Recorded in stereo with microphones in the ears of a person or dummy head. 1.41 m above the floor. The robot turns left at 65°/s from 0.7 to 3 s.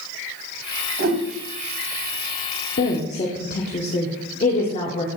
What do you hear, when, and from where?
1.0 s a whoosh: 65° right (ahead or behind), 1.3 m; by 1.2 s 75° right (ahead or behind), 1.3 m
2.8 s a woman speaking: 50° left (ahead or behind), 1.1 m; by 5.1 s 35° left (ahead or behind), 1.1 m